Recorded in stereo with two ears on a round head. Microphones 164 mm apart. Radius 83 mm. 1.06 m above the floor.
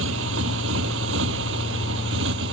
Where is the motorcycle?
85° right; by 2.5 s 75° right (ahead or behind).